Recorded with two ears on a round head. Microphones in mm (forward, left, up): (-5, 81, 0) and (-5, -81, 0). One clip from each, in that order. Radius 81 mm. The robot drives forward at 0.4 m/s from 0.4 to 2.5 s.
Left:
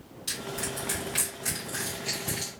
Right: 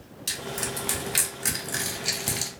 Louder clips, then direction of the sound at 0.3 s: Right 3 dB; 30° right (ahead or behind).